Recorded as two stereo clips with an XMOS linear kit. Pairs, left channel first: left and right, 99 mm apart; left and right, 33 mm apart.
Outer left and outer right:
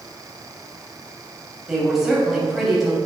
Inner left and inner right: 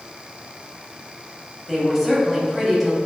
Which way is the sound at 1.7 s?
5° right (ahead or behind).